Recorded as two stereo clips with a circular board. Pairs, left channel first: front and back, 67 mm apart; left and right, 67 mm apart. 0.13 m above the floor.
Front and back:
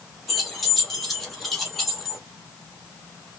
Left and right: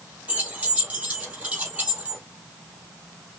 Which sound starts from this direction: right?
Keys jangling, at 0.3 s.